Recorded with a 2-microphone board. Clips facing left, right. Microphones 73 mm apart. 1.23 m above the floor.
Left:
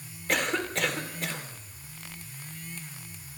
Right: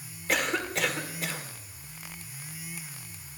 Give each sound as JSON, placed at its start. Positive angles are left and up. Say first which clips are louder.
{"t": 0.3, "sound": "a cough", "louder": "even", "side_deg": 0, "distance_m": 3.5}